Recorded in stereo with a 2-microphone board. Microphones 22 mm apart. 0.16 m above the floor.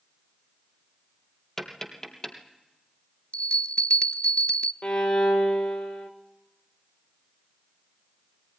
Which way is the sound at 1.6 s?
25° left (ahead or behind).